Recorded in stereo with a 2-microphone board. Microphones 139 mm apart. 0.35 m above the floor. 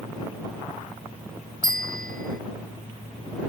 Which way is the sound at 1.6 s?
75° right (ahead or behind).